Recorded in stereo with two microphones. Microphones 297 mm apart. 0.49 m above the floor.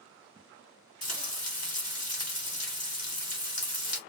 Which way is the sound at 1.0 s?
55° left (ahead or behind).